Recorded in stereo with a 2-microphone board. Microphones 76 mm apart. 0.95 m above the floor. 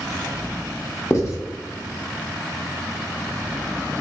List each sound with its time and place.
1.1 s writing: 35° left (ahead or behind), 0.6 m